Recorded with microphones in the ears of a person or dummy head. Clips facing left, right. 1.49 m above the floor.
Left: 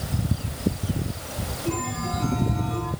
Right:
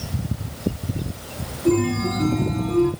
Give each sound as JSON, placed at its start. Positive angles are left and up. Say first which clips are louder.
{"t": 1.6, "sound": "a chime", "louder": "right 11 dB", "side_deg": -45, "distance_m": 3.5}